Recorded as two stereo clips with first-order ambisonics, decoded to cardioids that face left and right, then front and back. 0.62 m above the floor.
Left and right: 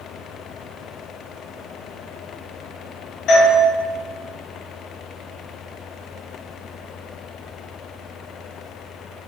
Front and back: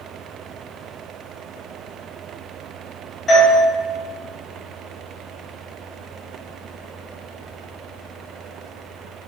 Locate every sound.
3.3 s a doorbell: 70° left, 1.5 m